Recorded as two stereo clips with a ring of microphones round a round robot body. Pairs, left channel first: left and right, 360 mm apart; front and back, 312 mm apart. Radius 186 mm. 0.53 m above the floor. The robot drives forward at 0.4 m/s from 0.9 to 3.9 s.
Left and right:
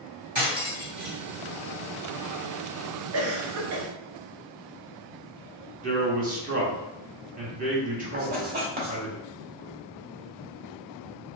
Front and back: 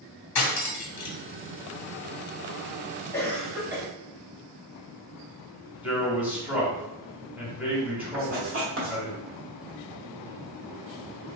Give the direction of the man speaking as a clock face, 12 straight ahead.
3 o'clock.